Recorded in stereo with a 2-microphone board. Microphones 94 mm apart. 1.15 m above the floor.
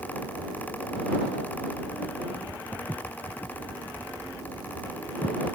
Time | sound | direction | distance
2.7 | footsteps | 15° left (ahead or behind) | ?